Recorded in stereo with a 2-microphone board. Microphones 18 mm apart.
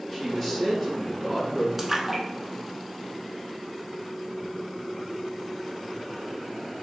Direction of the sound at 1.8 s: 15° right (ahead or behind).